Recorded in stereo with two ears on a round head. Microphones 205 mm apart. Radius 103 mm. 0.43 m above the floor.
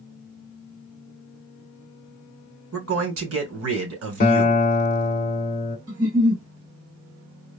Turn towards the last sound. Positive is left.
turn(degrees=-55)  # may be behind; listen again after turning